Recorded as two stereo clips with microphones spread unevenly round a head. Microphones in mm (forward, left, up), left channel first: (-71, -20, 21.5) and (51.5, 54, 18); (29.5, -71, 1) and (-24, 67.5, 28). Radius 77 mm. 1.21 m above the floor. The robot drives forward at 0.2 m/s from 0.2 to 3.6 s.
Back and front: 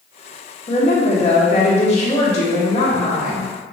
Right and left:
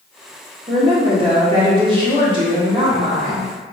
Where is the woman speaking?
170° left, 1.2 m.